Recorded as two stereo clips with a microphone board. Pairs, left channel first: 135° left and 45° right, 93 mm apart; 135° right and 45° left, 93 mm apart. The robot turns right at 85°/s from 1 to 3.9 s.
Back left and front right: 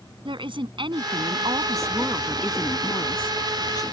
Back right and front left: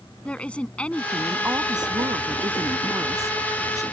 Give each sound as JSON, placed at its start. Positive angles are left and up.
{"t": 0.2, "sound": "a woman speaking", "azimuth_deg": -60}